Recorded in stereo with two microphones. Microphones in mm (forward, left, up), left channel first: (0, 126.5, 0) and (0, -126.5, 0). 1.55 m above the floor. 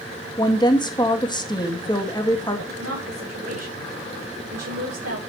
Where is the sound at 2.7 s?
80° right, 6 m.